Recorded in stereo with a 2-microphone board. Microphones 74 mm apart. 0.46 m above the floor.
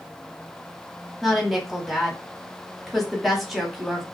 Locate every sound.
1.2 s a woman speaking: centre (ahead or behind), 1.0 m